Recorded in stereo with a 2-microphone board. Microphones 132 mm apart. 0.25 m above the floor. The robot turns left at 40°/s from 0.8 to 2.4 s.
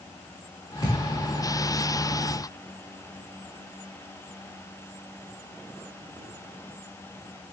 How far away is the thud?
About 7 m.